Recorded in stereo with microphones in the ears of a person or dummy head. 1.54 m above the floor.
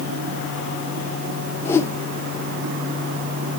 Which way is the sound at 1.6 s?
10° left (ahead or behind).